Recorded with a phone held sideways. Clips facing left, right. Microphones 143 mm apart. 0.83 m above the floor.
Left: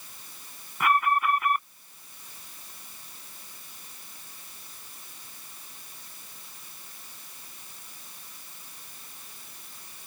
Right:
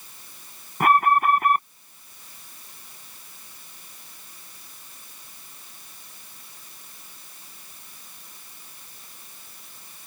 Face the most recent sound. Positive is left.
turn(degrees=-50)  # may be behind; listen again after turning